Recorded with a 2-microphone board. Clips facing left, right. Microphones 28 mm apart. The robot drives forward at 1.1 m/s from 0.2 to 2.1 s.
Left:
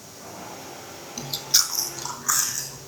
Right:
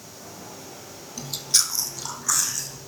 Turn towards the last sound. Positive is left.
turn(degrees=10)  # may be behind; listen again after turning